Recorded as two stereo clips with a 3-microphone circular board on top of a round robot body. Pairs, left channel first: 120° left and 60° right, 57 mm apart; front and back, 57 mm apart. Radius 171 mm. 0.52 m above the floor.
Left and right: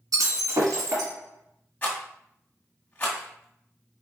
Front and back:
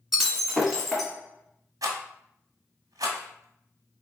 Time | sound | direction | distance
0.1 | breaking glass | 90° right | 1.5 m
1.8 | a rattle | 175° right | 1.5 m